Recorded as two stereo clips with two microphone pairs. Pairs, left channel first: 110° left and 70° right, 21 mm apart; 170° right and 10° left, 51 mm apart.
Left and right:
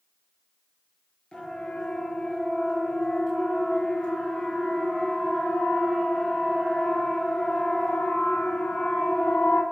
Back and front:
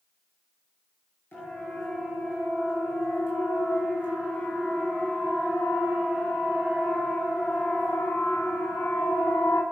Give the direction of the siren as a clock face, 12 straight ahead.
7 o'clock.